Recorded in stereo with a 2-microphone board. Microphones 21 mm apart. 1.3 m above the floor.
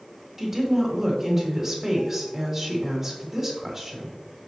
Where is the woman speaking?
15° right (ahead or behind), 3 m.